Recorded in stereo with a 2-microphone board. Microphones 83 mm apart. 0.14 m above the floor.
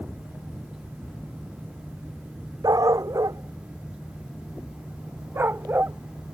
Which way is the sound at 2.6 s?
45° right (ahead or behind).